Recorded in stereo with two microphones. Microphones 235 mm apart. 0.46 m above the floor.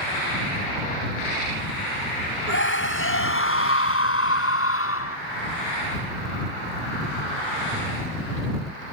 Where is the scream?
55° left (ahead or behind); by 5.2 s 65° left (ahead or behind).